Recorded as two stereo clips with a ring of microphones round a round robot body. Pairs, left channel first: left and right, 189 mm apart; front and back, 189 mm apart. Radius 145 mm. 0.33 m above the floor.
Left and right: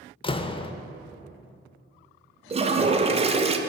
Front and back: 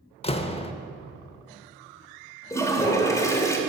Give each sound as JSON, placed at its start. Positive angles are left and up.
{"t": 0.2, "sound": "a door slam", "azimuth_deg": 40, "distance_m": 0.6}
{"t": 2.5, "sound": "a toilet flushing", "azimuth_deg": -65, "distance_m": 0.7}